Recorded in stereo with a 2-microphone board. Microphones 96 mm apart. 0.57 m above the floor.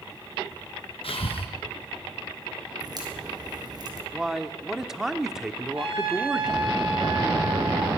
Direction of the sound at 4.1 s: 5° right (ahead or behind).